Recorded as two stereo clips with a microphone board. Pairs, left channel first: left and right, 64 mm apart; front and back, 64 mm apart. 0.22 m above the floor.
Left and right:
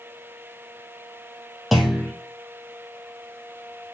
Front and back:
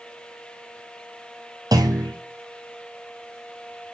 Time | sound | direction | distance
1.7 | a clunk | straight behind | 2.5 m